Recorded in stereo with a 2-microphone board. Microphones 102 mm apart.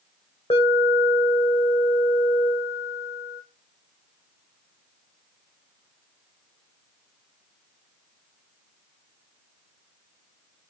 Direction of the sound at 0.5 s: 70° left (ahead or behind).